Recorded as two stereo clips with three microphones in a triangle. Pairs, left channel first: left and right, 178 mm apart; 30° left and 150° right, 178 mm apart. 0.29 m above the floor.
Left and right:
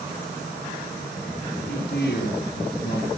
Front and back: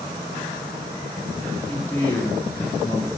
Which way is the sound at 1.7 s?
110° left.